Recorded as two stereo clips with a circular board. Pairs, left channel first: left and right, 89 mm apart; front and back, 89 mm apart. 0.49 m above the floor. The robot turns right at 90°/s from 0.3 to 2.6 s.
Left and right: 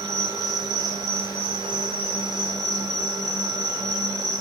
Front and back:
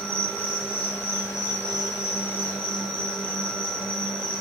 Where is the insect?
135° right, 1.3 m; by 4.4 s 70° left, 1.3 m.